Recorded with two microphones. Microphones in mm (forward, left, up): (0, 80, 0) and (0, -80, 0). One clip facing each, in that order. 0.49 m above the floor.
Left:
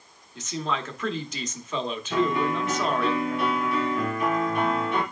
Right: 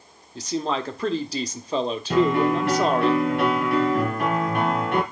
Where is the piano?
75° right (ahead or behind), 3 m.